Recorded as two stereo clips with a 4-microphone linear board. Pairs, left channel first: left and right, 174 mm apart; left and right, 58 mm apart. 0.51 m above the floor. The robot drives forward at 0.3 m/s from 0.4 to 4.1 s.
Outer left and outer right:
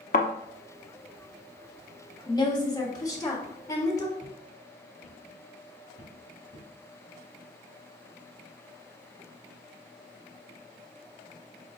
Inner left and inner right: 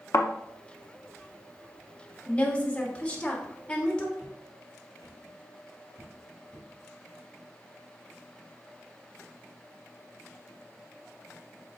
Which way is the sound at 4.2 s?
30° right (ahead or behind).